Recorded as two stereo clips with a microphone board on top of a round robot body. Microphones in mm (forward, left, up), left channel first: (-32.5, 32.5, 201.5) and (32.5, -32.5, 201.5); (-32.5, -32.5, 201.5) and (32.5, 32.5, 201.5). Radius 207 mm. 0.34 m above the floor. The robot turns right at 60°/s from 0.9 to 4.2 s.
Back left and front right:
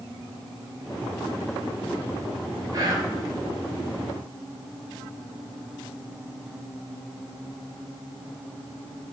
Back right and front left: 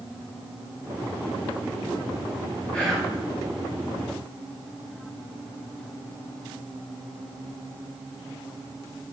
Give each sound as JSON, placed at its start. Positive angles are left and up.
{"t": 2.7, "sound": "whispering", "azimuth_deg": -60, "distance_m": 1.2}